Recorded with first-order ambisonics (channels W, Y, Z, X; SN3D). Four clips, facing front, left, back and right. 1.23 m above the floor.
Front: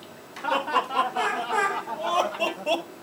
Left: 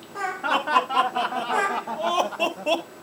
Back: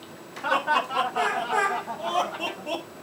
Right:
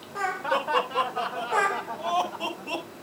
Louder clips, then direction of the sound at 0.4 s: Left 5 dB, back 1 dB; 105° left.